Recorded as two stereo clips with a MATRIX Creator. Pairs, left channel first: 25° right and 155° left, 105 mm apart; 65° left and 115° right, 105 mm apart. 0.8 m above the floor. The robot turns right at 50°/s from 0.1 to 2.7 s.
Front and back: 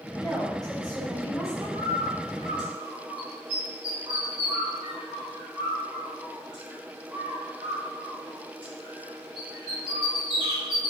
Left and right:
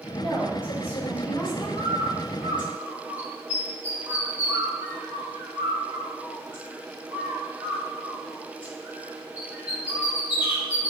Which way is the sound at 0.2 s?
40° left.